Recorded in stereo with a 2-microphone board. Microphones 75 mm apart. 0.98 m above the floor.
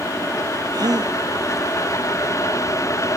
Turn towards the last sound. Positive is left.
turn(degrees=-60)  # may be behind; listen again after turning